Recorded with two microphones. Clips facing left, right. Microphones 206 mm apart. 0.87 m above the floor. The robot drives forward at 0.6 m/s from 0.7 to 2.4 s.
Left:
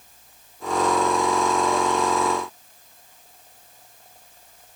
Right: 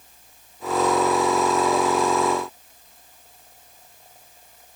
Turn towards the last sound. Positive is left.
No sound to turn to.